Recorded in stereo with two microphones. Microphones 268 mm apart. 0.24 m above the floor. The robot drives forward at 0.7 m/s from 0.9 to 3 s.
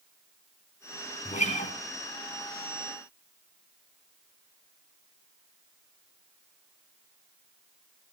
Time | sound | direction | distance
1.2 | a guitar | 25° left (ahead or behind) | 2.5 m